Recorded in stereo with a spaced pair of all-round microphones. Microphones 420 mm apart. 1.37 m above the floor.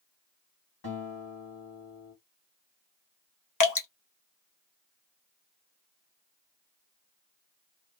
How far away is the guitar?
About 1.9 m.